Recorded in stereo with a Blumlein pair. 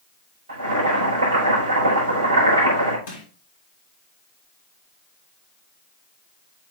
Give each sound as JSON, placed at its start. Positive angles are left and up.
{"t": 0.5, "sound": "boiling", "azimuth_deg": -70, "distance_m": 4.5}
{"t": 3.1, "sound": "crushing", "azimuth_deg": 60, "distance_m": 3.5}